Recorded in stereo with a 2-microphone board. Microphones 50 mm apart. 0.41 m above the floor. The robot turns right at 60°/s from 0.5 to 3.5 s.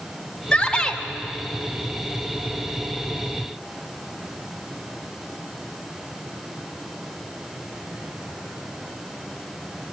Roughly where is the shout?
Left.